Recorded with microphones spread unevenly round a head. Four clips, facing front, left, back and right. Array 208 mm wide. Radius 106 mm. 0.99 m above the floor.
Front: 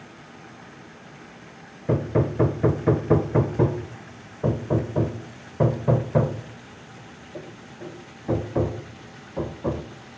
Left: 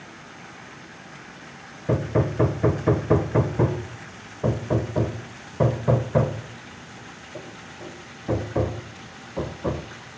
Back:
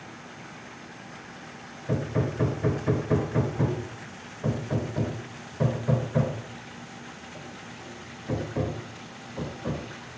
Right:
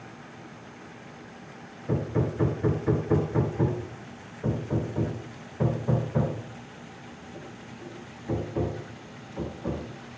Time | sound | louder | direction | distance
1.9 | hammering | left 5 dB, front 5 dB | 50° left | 1.0 m